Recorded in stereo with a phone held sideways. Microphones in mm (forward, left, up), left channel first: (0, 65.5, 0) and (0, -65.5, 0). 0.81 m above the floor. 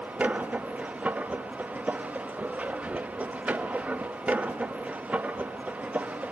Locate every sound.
0.0 s a machine running: 10° right (ahead or behind), 0.7 m